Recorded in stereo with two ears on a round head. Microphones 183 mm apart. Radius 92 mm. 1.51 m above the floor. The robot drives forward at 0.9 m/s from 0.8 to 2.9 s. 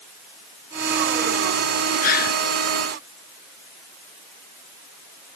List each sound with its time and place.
2.0 s a gasp: 45° left (ahead or behind); by 2.4 s 50° left (ahead or behind)